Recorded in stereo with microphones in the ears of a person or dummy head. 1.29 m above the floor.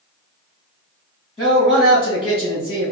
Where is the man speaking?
25° left (ahead or behind), 1.4 m.